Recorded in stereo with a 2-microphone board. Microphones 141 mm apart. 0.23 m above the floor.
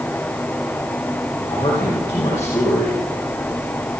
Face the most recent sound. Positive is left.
turn(degrees=25)  # may be behind; listen again after turning